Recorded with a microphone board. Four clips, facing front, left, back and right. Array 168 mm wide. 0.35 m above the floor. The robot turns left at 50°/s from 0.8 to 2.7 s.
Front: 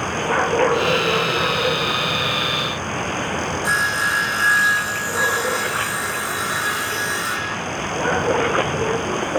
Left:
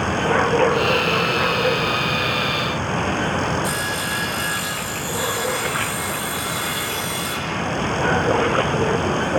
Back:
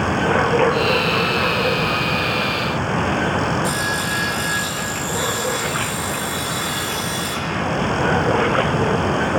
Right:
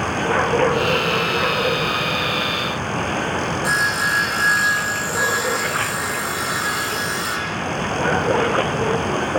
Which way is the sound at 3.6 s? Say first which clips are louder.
Right 4 dB, front 1 dB; 40° right.